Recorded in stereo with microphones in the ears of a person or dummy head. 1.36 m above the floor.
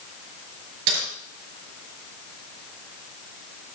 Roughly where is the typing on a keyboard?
Right.